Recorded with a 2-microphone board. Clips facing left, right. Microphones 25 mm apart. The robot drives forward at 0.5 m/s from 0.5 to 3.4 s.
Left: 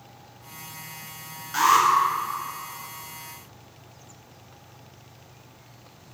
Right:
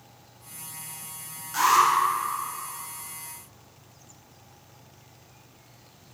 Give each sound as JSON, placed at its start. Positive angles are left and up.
{"t": 1.5, "sound": "an alarm", "side_deg": 20, "distance_m": 2.0}